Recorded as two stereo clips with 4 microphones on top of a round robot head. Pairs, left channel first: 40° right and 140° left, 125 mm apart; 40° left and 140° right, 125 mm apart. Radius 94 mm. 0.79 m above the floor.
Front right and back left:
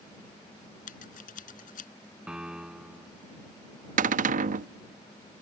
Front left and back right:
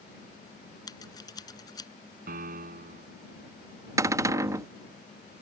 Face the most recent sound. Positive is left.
turn(degrees=150)